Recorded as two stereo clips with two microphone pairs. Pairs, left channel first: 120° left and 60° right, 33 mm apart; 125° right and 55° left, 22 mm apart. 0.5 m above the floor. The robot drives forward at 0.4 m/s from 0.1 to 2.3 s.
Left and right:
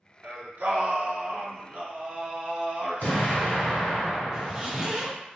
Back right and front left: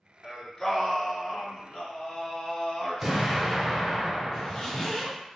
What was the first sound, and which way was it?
Singing, 45° right.